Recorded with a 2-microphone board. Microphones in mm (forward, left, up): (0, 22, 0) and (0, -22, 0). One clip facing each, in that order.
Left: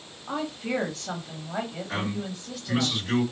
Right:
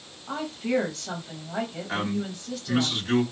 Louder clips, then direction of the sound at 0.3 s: Right 2 dB; 10° left (ahead or behind).